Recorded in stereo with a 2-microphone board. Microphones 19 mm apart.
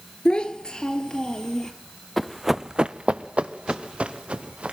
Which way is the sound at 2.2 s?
20° left (ahead or behind).